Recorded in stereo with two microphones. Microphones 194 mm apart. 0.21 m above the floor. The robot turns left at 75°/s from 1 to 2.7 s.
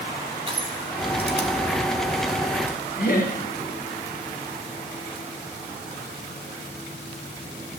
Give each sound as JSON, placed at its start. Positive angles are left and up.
{"t": 0.5, "sound": "crushing", "side_deg": -30, "distance_m": 1.4}
{"t": 3.0, "sound": "laughter", "side_deg": 50, "distance_m": 4.0}